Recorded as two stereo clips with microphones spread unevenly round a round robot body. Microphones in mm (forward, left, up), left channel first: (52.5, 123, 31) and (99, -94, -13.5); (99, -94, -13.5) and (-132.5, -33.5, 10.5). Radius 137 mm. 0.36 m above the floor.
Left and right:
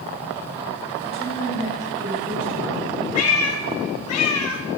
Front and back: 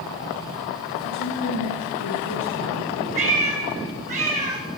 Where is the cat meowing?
100° left, 1.1 m.